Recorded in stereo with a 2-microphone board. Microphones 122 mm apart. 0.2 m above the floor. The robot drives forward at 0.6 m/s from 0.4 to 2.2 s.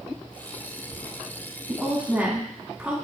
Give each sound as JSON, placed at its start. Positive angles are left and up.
{"t": 1.7, "sound": "a woman speaking", "side_deg": -10, "distance_m": 1.2}